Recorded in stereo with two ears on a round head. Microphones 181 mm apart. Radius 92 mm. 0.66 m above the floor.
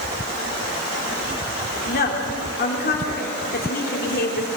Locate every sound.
1.9 s a woman speaking: 50° left (ahead or behind), 2 m